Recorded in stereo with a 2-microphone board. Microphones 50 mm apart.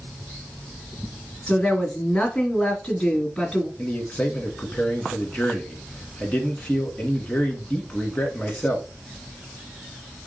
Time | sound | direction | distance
1.5 | a woman speaking | 10° left (ahead or behind) | 1.8 m
3.8 | a man speaking | 30° left (ahead or behind) | 1.3 m